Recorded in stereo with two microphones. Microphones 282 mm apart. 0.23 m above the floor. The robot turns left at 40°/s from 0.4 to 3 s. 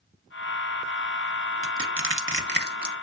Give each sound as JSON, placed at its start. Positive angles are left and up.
{"t": 1.6, "sound": "crushing", "side_deg": -45, "distance_m": 0.6}